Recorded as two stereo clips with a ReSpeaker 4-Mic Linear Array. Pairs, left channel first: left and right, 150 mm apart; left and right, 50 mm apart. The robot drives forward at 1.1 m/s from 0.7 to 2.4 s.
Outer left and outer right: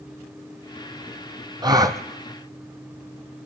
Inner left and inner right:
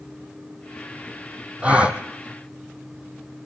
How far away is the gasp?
About 1.9 m.